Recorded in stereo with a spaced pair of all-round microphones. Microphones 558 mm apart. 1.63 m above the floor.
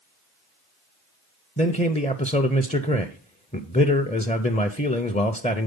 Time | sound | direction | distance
1.6 | a man speaking | 15° left (ahead or behind) | 0.5 m